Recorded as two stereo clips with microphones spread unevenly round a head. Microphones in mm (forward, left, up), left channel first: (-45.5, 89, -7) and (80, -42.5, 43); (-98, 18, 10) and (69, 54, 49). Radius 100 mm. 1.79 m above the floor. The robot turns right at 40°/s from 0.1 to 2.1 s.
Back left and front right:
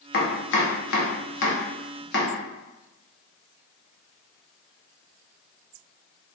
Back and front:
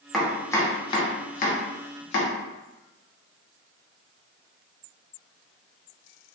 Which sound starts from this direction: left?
Chopping, at 0.1 s.